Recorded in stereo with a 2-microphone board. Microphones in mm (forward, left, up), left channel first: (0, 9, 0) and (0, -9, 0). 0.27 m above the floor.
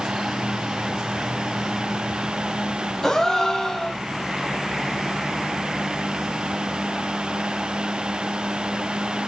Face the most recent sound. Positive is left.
turn(degrees=30)  # may be behind; listen again after turning